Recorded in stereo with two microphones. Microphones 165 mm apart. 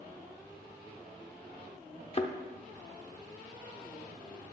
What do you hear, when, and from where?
2.1 s a thud: 35° left (ahead or behind), 0.6 m